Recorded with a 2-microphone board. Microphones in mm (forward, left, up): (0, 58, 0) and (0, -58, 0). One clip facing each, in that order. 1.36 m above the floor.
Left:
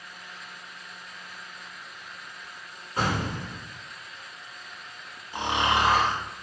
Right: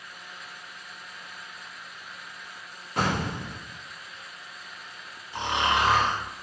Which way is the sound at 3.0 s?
70° right (ahead or behind).